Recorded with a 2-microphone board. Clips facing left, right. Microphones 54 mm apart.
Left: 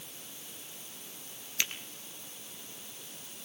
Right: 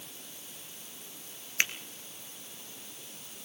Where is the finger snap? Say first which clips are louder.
Right 5 dB; 45° right (ahead or behind), 1.9 m.